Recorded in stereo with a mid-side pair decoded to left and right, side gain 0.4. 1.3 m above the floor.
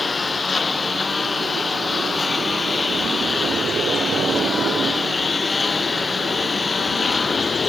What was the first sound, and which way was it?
A lawn mower, 40° left.